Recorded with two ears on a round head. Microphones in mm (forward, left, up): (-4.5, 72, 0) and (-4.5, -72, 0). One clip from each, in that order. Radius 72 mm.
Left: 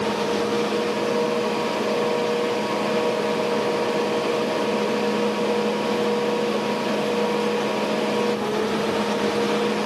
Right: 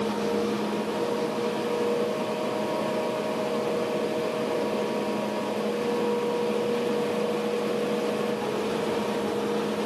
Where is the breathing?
No breathing in this recording.